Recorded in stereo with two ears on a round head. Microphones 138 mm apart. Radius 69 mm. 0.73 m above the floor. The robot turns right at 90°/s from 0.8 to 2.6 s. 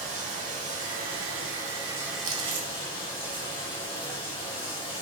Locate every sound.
0.0 s running water: 125° right, 0.9 m; by 5.0 s 35° left, 0.9 m
2.2 s chewing: 20° right (ahead or behind), 0.8 m; by 4.2 s 40° right (ahead or behind), 0.8 m